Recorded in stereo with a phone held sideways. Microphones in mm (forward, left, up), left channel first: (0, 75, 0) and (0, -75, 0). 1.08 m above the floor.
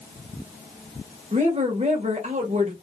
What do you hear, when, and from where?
1.3 s a woman speaking: 45° right (ahead or behind), 1.0 m